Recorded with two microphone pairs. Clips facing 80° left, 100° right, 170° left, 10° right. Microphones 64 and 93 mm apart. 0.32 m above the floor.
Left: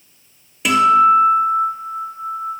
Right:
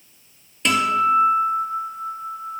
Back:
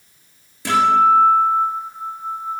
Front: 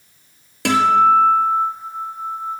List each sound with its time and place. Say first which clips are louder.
0.7 s a guitar: left 7 dB, even; straight ahead, 2 m